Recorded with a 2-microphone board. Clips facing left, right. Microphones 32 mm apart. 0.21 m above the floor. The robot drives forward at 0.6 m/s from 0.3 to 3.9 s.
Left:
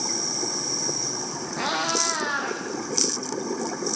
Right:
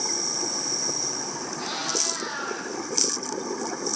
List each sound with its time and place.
1.6 s a cat meowing: 60° left (ahead or behind), 9 m; by 2.6 s 65° left (ahead or behind), 9 m